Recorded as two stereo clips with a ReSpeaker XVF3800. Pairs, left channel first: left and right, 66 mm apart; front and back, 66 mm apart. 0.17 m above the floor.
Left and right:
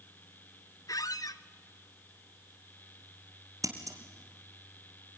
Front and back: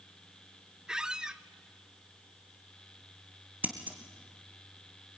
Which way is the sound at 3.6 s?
115° right.